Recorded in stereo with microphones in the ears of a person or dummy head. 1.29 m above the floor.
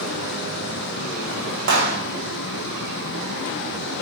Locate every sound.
1.7 s a clap: 70° right (ahead or behind), 2.5 m